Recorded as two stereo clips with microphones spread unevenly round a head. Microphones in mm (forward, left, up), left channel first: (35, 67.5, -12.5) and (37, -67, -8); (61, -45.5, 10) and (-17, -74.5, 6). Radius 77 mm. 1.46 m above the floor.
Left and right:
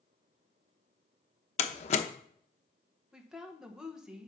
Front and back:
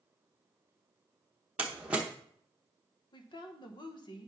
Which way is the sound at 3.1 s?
5° right.